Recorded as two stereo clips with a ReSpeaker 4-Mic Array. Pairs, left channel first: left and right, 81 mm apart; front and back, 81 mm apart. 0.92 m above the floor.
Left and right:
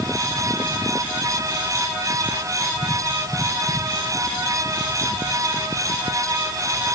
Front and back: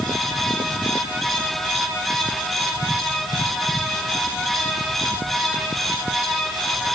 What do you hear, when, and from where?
Only background noise.